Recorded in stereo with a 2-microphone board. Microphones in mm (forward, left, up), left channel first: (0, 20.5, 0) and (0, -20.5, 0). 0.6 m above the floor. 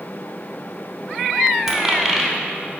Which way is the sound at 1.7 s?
10° right (ahead or behind).